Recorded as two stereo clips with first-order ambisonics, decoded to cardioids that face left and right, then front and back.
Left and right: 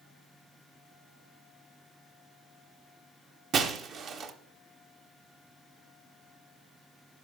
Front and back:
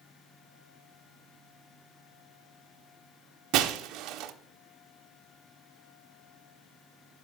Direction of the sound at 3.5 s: 145° right.